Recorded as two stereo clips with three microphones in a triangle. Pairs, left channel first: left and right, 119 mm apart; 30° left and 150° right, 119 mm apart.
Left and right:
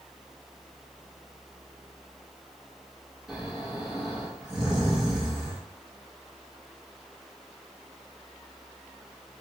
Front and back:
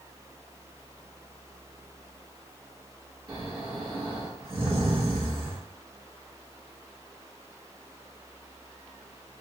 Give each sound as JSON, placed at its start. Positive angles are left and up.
{"t": 3.3, "sound": "snoring", "azimuth_deg": -175, "distance_m": 1.5}